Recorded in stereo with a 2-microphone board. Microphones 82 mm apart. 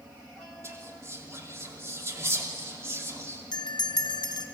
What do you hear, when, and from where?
0.6 s whispering: 35° right (ahead or behind), 2.5 m
3.5 s a bell: 60° left (ahead or behind), 1.1 m